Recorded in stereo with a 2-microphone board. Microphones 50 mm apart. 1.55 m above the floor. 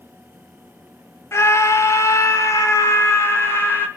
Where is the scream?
65° left (ahead or behind), 2 m; by 3.9 s 50° left (ahead or behind), 2.5 m.